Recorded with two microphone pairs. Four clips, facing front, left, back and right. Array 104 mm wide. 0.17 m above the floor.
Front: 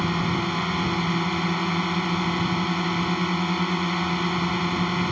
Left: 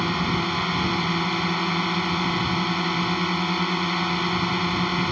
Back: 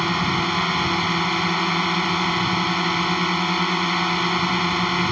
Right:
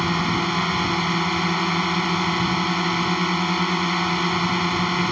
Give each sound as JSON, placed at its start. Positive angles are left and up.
{"t": 0.0, "sound": "a drone", "azimuth_deg": -150}